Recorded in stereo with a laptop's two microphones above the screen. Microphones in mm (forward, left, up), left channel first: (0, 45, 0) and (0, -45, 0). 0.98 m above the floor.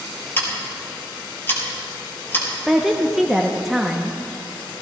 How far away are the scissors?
About 3.5 m.